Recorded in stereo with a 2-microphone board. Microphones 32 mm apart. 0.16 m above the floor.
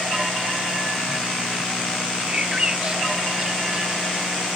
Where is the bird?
30° right (ahead or behind).